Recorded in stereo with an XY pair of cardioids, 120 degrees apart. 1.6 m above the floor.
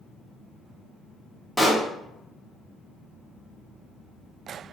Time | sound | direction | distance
1.6 | a pop | straight ahead | 0.9 m